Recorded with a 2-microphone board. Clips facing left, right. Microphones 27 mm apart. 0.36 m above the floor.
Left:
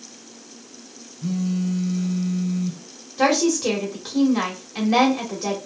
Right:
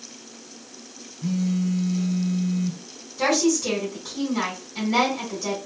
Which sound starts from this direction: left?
A woman speaking, at 3.2 s.